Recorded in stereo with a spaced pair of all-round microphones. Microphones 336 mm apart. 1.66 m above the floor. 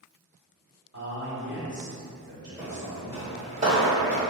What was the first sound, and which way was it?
A man speaking, 45° right (ahead or behind).